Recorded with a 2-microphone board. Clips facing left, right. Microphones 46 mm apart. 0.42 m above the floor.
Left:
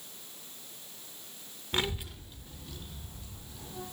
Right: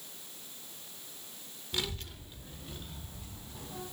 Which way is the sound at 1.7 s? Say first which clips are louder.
Left 5 dB; 40° left (ahead or behind).